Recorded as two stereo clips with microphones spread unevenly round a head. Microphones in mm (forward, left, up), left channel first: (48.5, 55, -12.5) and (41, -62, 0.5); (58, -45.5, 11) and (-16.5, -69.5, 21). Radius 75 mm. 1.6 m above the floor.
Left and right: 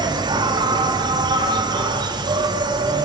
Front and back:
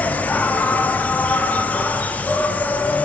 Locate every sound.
0.0 s an insect: 45° right, 0.8 m